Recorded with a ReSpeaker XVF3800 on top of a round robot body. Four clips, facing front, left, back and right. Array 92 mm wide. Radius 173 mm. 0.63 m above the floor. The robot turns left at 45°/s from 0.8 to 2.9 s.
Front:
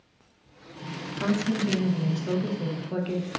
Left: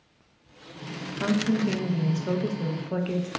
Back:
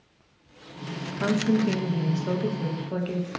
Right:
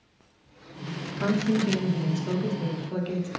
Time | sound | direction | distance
1.2 | a woman speaking | 170° left | 0.6 m